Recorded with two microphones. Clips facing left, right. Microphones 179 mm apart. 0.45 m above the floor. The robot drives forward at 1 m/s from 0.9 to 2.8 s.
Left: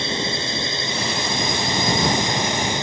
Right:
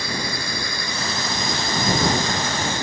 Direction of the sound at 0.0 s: 25° left (ahead or behind).